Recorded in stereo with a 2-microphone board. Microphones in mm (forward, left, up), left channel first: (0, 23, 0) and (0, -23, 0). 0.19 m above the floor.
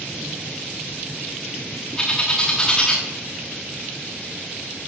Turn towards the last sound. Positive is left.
turn(degrees=15)  # may be behind; listen again after turning